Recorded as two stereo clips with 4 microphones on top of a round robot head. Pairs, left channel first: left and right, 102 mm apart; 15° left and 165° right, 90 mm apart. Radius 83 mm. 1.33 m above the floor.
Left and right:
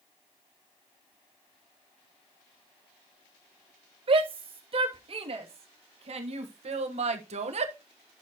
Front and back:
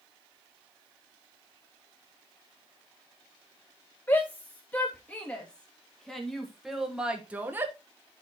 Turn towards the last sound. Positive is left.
turn(degrees=-100)